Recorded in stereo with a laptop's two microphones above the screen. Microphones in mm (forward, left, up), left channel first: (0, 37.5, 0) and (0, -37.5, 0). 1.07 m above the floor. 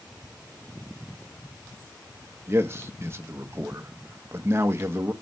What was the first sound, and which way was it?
A man speaking, 35° right (ahead or behind).